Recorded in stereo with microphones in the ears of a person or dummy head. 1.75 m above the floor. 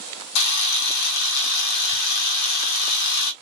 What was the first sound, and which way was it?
A camera shutter, 60° left (ahead or behind).